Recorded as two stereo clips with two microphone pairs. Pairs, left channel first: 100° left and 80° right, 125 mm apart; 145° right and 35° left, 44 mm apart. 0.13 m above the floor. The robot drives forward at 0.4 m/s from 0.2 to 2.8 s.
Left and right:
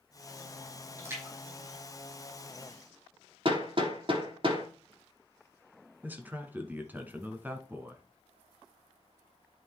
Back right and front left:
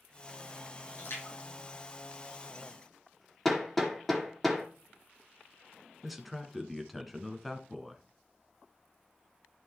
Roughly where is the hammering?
Ahead right.